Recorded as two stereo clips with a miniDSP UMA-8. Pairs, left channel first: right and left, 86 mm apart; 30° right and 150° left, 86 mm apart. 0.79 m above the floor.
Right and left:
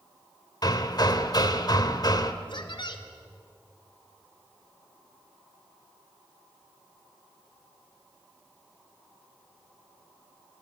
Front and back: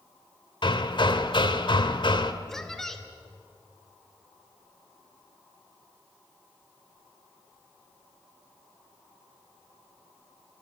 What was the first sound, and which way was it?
Hammering, 50° right.